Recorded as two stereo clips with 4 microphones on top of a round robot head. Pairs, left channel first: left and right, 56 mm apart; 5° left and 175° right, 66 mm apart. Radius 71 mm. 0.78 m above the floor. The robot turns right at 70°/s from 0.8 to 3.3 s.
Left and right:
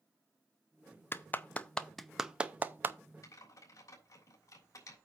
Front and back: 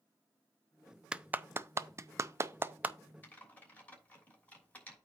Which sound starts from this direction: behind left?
A clap, at 1.1 s.